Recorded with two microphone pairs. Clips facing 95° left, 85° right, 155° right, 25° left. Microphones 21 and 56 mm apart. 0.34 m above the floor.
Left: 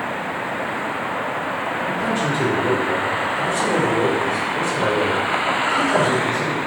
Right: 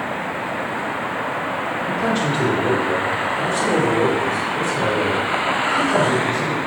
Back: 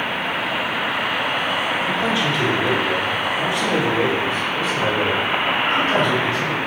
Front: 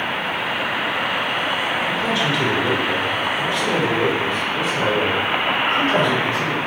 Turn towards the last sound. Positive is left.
turn(degrees=90)